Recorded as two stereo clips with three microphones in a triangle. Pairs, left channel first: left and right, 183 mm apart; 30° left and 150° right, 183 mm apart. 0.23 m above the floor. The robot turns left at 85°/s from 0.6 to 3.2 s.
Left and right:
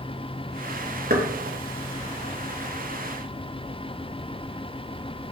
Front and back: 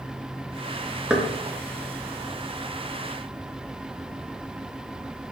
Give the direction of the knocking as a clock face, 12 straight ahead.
2 o'clock.